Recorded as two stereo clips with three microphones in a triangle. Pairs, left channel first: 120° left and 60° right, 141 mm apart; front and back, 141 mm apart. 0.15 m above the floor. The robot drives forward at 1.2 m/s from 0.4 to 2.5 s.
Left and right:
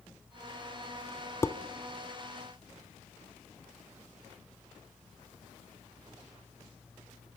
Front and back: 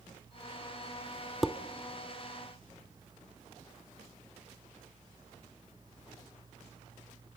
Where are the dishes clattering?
90° left, 0.8 m; by 1.6 s 120° left, 0.8 m.